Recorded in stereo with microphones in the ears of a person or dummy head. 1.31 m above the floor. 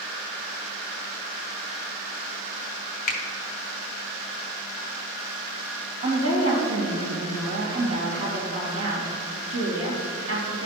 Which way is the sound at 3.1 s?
45° left (ahead or behind).